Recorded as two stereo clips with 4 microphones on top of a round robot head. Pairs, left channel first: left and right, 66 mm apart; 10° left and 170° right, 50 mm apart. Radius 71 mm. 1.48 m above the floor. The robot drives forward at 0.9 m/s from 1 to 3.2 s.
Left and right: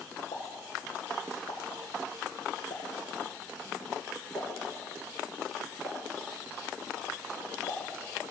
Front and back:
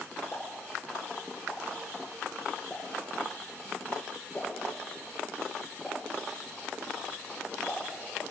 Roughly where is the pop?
Left.